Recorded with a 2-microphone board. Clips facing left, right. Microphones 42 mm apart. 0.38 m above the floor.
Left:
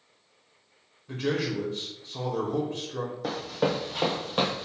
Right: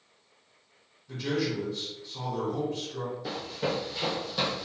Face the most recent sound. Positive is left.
turn(degrees=35)  # may be behind; listen again after turning